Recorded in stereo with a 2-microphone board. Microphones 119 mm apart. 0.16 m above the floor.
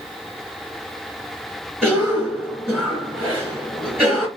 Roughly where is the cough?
Centre.